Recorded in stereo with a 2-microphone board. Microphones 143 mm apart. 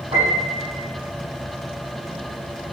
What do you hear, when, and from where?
0.1 s a piano: 45° right (ahead or behind), 4.5 m